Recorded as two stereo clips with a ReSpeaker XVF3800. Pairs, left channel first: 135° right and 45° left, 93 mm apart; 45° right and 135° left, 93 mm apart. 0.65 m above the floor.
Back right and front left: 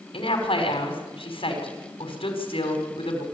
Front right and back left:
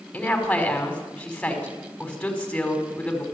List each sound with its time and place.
0.1 s a woman speaking: 125° right, 5 m